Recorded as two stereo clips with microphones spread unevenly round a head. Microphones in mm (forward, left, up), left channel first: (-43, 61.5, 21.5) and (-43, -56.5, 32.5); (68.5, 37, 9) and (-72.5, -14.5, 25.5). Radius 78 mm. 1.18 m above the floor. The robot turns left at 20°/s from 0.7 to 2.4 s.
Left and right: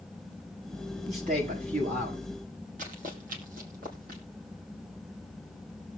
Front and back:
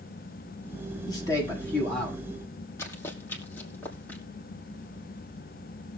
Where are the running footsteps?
55° right, 2.5 m; by 4.2 s 60° right, 3.5 m.